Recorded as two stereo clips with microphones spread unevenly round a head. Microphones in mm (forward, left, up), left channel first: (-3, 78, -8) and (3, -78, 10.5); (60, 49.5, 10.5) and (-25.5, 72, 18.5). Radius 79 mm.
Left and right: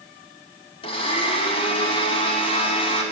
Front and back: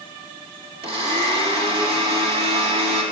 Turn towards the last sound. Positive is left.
turn(degrees=150)